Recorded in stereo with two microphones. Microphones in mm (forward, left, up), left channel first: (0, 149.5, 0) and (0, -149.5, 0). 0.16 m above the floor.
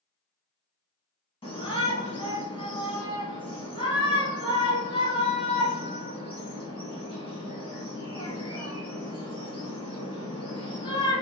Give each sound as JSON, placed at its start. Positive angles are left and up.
{"t": 1.4, "sound": "a shout", "side_deg": 15, "distance_m": 1.0}